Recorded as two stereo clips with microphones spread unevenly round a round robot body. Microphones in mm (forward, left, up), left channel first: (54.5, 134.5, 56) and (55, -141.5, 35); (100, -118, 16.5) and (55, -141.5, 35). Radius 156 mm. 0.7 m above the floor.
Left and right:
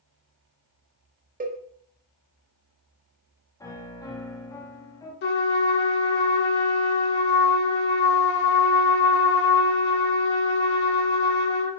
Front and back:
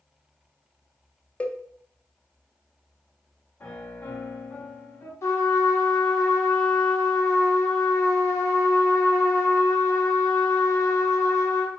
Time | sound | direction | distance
1.4 | a cowbell | 30° right | 0.6 m
3.6 | a piano | 10° left | 0.9 m
5.2 | a trumpet | 65° left | 0.5 m